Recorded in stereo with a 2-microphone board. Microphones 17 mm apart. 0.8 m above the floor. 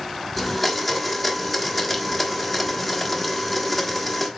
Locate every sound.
0.4 s a blender: 15° left (ahead or behind), 1.3 m